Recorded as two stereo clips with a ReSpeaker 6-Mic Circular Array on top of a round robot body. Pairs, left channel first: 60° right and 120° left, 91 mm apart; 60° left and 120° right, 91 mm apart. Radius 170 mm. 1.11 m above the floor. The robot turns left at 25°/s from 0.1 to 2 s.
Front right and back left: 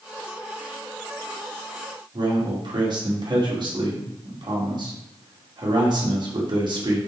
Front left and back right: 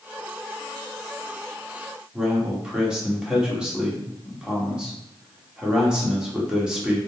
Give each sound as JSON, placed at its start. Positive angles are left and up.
{"t": 2.1, "sound": "a man speaking", "azimuth_deg": 160, "distance_m": 3.0}